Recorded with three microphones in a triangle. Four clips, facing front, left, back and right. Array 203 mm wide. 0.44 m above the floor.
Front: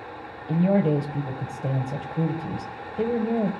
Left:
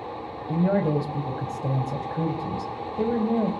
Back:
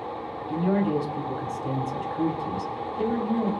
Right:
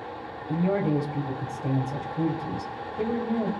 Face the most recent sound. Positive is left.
turn(degrees=40)